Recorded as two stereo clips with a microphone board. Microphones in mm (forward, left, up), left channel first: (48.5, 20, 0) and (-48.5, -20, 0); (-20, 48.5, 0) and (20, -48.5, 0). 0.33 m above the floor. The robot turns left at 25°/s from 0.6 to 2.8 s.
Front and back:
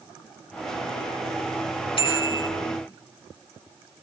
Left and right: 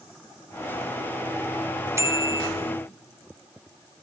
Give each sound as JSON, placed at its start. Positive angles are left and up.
{"t": 2.0, "sound": "a bicycle bell", "azimuth_deg": -5, "distance_m": 2.5}